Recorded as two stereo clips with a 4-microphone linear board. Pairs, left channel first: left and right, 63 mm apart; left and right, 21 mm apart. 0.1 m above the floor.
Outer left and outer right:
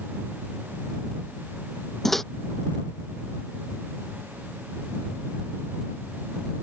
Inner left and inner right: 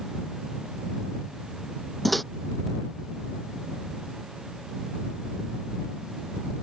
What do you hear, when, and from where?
2.0 s a microwave: 5° left (ahead or behind)